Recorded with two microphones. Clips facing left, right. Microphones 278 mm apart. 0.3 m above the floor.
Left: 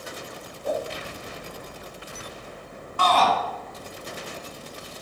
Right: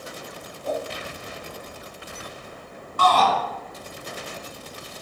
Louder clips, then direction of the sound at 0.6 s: Left 1 dB; 10° left (ahead or behind).